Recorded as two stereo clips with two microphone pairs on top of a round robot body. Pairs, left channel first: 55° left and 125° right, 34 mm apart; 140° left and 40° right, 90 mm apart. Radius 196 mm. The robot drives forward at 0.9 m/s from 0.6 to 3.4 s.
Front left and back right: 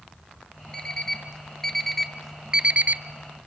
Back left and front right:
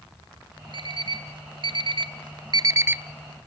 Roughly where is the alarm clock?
Ahead.